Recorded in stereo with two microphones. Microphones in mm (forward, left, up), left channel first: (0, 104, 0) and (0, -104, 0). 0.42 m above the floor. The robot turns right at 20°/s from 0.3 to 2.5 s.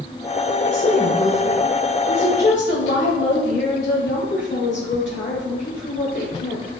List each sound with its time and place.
0.6 s a woman speaking: 65° left, 1.4 m; by 6.7 s 105° left, 1.4 m